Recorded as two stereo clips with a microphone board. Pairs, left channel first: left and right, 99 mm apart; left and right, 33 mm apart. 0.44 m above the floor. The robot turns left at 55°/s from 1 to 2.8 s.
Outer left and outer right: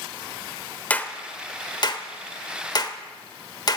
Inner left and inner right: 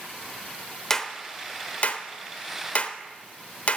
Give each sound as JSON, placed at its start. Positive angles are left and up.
{"t": 0.9, "sound": "a clap", "side_deg": 15, "distance_m": 1.1}